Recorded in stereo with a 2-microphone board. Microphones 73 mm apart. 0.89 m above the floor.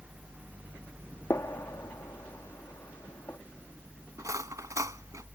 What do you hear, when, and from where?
1.3 s a gunshot: 45° left (ahead or behind)
4.2 s cutlery clinking: 50° right (ahead or behind)